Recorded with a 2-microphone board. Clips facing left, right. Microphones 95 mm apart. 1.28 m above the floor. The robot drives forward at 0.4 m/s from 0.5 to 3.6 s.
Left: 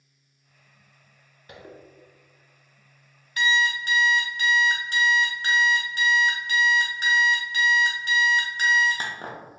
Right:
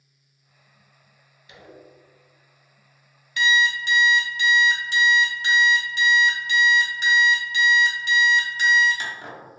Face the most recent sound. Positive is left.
turn(degrees=40)  # may be behind; listen again after turning